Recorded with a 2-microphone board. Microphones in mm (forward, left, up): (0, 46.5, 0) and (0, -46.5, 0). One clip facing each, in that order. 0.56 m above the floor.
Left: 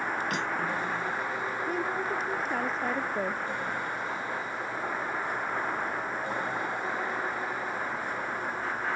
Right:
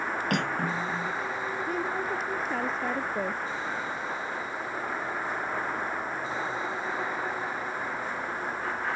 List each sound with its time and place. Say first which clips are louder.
0.3 s cutlery clinking: right 2 dB; 60° right (ahead or behind)
1.7 s a woman speaking: even; centre (ahead or behind)